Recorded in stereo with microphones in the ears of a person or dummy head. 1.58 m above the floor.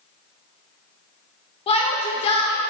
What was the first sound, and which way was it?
A shout, 30° left (ahead or behind).